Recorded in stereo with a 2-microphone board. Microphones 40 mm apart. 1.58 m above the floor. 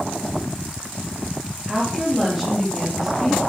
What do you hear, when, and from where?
1.7 s a woman speaking: centre (ahead or behind), 3.5 m